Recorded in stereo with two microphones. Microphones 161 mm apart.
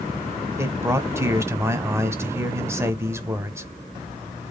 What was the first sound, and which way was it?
A man speaking, 15° right (ahead or behind).